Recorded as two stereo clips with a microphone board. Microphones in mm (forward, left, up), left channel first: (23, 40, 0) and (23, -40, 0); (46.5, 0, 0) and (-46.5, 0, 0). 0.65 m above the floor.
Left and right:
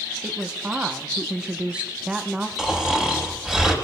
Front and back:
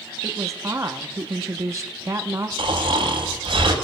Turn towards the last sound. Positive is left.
turn(degrees=-175)